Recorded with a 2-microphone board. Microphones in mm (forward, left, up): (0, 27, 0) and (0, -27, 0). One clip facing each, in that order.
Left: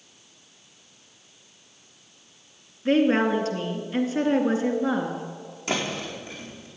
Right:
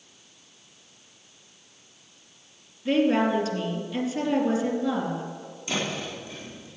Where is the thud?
65° left (ahead or behind), 4.5 m.